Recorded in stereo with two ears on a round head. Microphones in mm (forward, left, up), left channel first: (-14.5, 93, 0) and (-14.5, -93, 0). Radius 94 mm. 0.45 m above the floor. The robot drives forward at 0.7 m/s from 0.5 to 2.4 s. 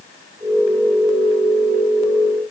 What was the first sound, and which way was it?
Only background noise.